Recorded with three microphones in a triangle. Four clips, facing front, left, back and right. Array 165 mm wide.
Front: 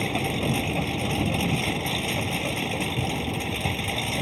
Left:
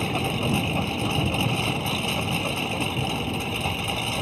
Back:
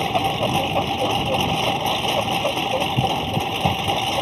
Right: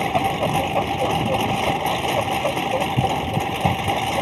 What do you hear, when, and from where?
0.0 s a lawn mower: 135° right